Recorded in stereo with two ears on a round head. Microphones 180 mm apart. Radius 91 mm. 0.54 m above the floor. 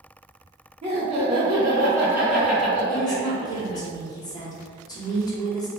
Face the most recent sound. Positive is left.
turn(degrees=20)  # may be behind; listen again after turning